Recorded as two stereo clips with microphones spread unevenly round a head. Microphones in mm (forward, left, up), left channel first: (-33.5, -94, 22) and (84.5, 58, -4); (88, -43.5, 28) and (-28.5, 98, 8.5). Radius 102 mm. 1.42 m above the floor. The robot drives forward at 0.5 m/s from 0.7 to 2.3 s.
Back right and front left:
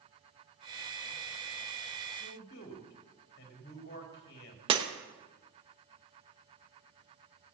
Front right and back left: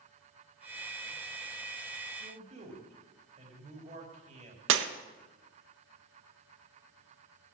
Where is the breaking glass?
120° left, 1.0 m.